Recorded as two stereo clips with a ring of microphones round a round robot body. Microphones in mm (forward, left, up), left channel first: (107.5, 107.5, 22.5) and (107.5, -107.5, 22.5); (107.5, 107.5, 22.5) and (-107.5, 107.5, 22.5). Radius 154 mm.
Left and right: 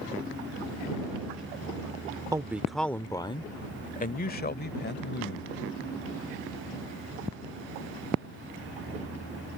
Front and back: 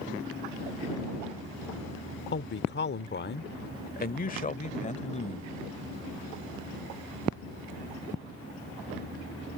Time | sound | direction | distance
2.3 | a man speaking | 20° right | ?